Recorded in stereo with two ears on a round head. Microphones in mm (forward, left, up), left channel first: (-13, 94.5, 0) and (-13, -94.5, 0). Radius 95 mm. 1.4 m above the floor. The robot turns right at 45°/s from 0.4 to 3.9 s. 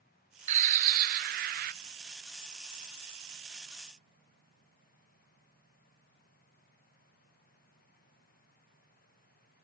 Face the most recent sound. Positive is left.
turn(degrees=25)